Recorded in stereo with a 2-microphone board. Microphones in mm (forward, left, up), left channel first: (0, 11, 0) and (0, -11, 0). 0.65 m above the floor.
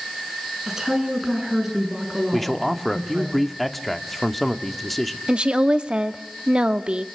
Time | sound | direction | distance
0.7 | a woman speaking | 25° right (ahead or behind) | 7 m
2.3 | a man speaking | centre (ahead or behind) | 1.3 m
5.3 | a woman speaking | 50° right (ahead or behind) | 0.9 m